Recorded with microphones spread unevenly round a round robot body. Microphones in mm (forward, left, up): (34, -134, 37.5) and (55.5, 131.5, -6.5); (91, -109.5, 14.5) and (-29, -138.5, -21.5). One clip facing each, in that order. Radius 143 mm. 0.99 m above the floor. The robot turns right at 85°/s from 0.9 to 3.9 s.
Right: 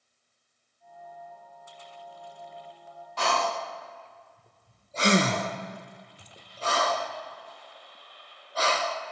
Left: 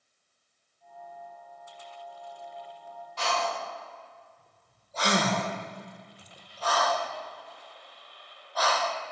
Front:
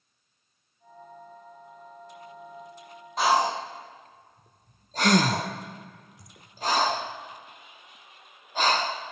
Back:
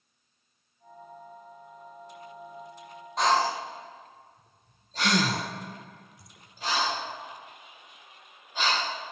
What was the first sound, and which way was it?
Breathing, 95° right.